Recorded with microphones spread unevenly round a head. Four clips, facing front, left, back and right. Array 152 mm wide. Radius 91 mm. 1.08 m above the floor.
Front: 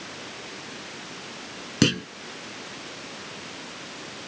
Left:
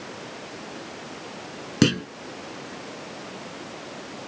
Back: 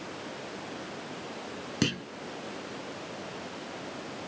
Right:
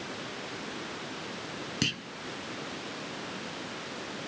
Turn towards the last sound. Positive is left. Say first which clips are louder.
# left 16 dB, front 8 dB
turn(degrees=35)